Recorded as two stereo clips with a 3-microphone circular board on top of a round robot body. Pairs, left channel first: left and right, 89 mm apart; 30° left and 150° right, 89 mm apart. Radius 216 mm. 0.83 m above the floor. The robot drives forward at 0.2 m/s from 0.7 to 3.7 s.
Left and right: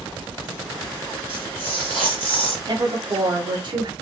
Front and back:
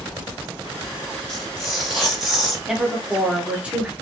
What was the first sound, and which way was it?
Tearing paper, 60° right.